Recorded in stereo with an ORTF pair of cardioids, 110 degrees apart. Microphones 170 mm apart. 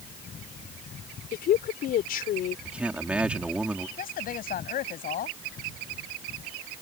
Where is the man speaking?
5° right.